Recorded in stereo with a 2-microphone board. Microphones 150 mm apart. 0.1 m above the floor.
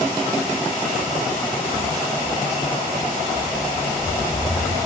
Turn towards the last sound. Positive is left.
turn(degrees=-60)  # may be behind; listen again after turning